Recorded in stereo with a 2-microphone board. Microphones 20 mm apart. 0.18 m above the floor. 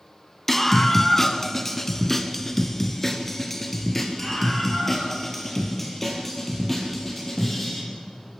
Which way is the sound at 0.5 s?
15° left (ahead or behind).